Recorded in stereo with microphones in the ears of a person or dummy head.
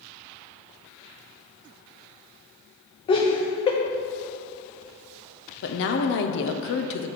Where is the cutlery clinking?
No cutlery clinking in this recording.